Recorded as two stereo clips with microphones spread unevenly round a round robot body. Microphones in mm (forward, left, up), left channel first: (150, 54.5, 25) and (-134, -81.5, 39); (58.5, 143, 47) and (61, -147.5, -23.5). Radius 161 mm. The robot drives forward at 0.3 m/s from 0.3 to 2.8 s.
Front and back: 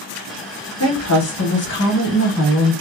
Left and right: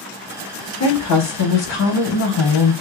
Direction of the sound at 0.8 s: 55° left.